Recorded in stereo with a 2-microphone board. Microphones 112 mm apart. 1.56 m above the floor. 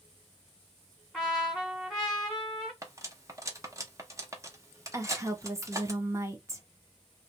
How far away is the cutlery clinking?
About 0.9 m.